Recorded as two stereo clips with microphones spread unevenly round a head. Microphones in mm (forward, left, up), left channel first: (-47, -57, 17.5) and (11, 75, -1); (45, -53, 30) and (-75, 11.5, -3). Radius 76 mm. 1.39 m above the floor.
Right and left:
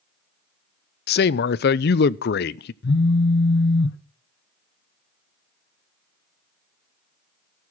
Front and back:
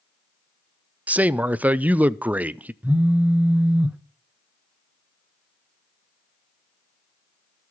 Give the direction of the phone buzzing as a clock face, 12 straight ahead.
4 o'clock.